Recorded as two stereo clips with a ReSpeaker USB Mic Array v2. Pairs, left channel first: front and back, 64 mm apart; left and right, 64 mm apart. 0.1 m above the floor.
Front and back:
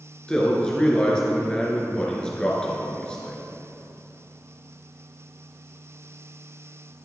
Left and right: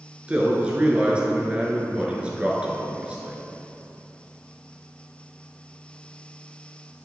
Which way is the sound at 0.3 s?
55° right.